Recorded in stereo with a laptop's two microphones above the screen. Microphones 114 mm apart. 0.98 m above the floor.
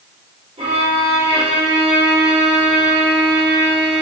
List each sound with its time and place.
0.6 s a violin: 75° right (ahead or behind), 2.5 m